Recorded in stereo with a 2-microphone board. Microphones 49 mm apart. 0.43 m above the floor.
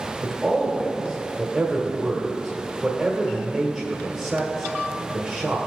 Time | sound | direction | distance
0.2 | a man speaking | 15° right (ahead or behind) | 1.4 m